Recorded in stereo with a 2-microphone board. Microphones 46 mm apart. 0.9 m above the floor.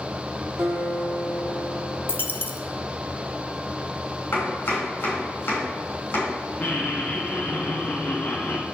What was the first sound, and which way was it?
A guitar, 70° right (ahead or behind).